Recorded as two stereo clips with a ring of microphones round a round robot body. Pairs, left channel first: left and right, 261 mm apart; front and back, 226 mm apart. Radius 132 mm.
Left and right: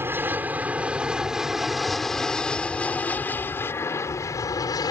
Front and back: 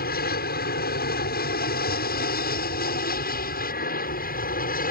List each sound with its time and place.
0.0 s an aircraft: 10° right; by 4.9 s 20° left